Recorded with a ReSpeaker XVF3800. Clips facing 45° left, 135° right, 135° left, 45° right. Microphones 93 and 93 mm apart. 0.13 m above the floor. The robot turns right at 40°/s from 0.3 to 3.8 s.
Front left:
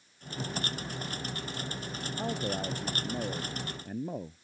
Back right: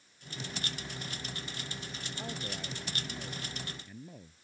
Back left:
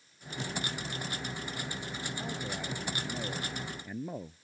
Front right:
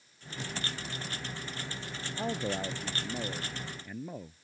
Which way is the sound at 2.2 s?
10° right.